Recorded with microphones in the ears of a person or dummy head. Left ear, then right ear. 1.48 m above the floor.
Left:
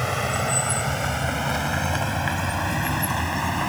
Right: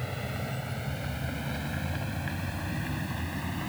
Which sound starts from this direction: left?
A vehicle, at 0.0 s.